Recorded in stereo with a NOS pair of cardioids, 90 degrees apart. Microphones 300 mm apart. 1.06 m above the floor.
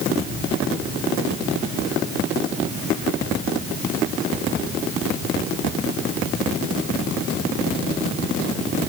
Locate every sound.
Only background noise.